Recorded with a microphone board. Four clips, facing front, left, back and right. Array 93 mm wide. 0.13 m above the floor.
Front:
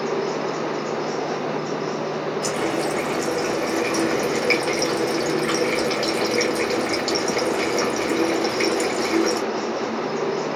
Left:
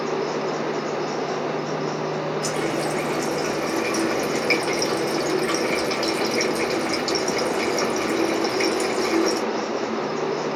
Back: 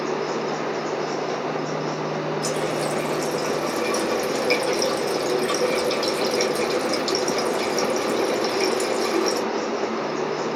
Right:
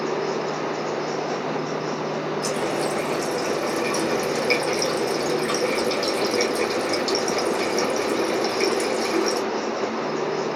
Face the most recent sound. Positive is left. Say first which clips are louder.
# even, front 3 dB
turn(degrees=25)